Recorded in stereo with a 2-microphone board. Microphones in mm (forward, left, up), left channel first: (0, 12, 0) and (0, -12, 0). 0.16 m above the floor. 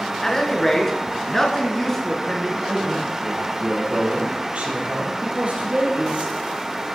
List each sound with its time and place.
0.2 s a man speaking: 20° left (ahead or behind), 2 m
2.6 s a man speaking: 50° right (ahead or behind), 4 m